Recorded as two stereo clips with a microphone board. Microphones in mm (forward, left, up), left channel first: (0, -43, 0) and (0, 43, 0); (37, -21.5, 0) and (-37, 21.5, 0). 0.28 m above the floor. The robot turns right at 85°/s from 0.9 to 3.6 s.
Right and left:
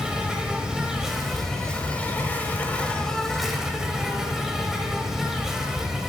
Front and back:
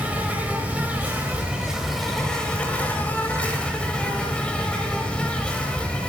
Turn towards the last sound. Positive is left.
turn(degrees=15)